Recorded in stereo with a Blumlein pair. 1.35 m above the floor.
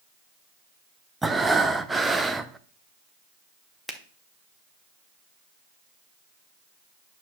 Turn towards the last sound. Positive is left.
turn(degrees=5)